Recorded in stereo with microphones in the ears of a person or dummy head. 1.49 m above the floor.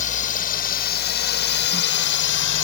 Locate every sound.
0.0 s a drone: 40° left (ahead or behind); by 2.6 s 65° left (ahead or behind)